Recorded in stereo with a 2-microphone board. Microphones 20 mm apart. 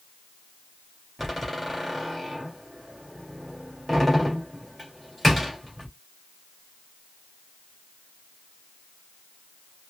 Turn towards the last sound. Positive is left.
turn(degrees=5)  # may be behind; listen again after turning